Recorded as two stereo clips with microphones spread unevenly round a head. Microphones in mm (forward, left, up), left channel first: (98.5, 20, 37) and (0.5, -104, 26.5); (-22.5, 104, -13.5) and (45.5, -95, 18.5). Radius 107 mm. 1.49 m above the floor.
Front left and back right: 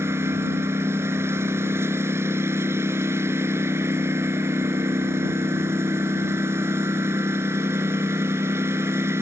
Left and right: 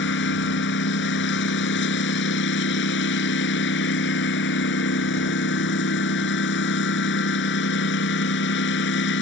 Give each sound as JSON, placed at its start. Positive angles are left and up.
{"t": 0.0, "sound": "a lawn mower", "azimuth_deg": 150}